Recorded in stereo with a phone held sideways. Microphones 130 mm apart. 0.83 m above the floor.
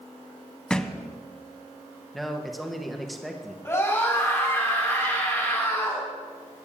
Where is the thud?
5° left (ahead or behind), 0.7 m.